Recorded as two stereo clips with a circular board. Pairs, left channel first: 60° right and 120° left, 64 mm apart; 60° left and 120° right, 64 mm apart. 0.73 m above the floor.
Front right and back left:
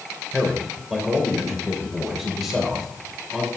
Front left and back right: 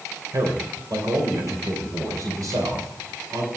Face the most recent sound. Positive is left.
turn(degrees=-150)